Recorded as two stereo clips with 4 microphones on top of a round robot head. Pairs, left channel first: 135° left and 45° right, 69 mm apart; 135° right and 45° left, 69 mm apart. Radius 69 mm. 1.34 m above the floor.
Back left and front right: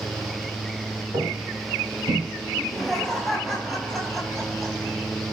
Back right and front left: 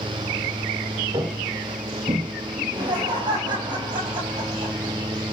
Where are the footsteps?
5° left, 7 m; by 2.2 s 15° left, 6.5 m.